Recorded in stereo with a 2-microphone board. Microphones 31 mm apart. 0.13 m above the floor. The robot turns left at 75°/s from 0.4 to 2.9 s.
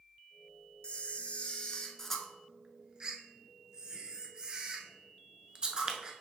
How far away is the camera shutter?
About 0.6 m.